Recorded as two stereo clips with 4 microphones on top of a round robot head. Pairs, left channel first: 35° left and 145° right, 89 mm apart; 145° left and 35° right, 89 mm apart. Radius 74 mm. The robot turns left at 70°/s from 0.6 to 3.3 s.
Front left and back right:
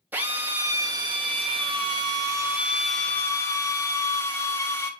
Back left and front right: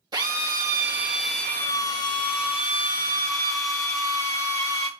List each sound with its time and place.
0.1 s a drill: 75° right, 2 m; by 4.9 s 95° left, 2 m